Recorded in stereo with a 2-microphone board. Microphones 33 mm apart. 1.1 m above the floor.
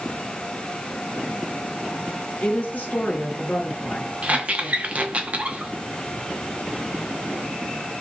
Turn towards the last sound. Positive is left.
turn(degrees=-40)  # may be behind; listen again after turning